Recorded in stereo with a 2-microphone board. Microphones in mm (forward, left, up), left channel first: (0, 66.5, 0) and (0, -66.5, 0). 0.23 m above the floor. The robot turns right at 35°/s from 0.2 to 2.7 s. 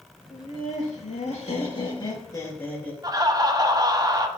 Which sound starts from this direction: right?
Laughter, at 3.0 s.